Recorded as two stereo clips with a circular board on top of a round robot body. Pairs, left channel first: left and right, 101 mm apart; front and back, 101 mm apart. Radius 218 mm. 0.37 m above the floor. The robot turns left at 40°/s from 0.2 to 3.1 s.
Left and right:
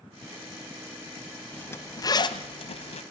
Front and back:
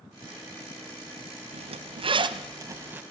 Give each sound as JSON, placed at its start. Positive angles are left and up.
{"t": 1.5, "sound": "a zipper", "azimuth_deg": 165, "distance_m": 0.9}